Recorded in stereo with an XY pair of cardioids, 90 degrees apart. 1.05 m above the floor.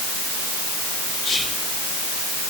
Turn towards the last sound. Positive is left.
turn(degrees=35)